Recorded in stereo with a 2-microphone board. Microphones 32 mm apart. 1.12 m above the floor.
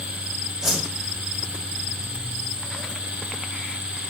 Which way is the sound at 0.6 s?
20° right (ahead or behind).